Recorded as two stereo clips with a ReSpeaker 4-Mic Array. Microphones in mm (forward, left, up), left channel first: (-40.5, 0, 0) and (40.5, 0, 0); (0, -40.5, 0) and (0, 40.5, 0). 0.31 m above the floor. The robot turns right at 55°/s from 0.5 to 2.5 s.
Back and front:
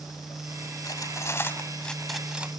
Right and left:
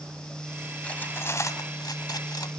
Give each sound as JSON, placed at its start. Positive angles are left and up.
{"t": 0.8, "sound": "cutlery clinking", "azimuth_deg": -160, "distance_m": 1.4}